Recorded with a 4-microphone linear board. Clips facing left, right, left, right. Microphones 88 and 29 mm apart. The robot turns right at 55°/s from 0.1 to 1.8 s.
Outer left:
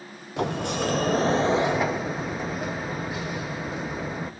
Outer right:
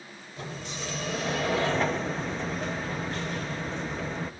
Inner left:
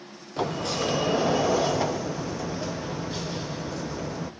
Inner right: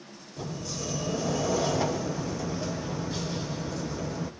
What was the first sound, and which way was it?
A sliding door, 90° left.